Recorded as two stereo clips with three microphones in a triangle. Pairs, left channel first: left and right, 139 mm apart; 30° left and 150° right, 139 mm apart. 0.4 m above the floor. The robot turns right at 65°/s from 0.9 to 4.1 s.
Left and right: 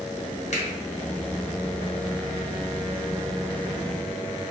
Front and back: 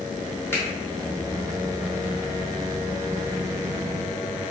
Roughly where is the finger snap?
Left.